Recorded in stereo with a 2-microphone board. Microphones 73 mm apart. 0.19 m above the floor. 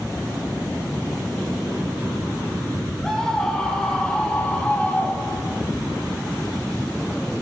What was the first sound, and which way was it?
A scream, 5° left (ahead or behind).